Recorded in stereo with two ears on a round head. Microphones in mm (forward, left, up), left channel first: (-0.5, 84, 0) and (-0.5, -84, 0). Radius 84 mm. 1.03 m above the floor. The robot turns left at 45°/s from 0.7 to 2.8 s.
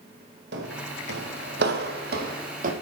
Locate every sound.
0.5 s footsteps: 60° right (ahead or behind), 2 m; by 2.7 s 45° right (ahead or behind), 2 m